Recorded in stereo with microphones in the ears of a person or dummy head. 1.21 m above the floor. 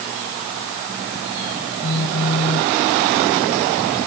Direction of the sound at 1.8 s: 65° left (ahead or behind).